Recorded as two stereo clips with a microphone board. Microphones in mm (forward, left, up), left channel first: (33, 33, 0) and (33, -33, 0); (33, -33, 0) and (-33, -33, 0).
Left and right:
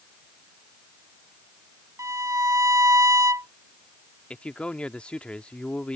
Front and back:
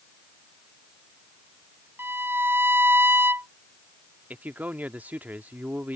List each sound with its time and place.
2.0 s a violin: 125° right
4.3 s a man speaking: 145° left